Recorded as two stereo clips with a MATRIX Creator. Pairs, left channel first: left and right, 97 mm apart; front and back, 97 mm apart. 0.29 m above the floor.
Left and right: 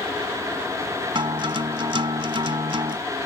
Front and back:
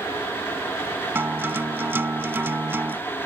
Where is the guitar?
115° right.